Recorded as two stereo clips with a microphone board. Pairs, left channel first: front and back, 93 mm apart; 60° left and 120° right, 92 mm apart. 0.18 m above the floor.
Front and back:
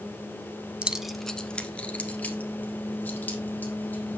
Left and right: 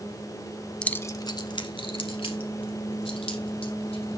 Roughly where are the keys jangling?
Behind left.